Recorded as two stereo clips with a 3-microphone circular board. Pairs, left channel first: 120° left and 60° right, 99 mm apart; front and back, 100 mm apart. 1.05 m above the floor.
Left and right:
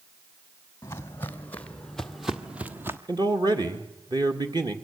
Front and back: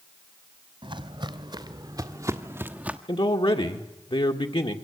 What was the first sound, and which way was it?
Footsteps, 175° left.